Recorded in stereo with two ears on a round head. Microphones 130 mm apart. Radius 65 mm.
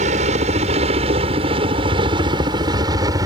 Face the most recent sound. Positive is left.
turn(degrees=-25)  # may be behind; listen again after turning